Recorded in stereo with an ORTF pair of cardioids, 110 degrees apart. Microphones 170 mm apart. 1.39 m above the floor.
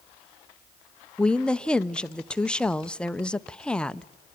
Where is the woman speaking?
5° left, 0.5 m.